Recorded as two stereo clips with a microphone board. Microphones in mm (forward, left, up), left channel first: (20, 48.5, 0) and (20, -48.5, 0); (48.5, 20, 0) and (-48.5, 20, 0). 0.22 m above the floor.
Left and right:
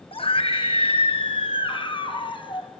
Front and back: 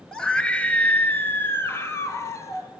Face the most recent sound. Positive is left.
turn(degrees=60)